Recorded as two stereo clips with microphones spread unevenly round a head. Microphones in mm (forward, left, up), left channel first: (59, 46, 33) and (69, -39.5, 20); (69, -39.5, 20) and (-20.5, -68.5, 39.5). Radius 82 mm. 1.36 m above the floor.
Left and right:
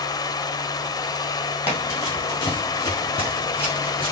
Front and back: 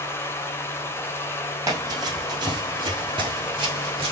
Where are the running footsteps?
150° left, 1.9 m; by 4.1 s 165° left, 3 m.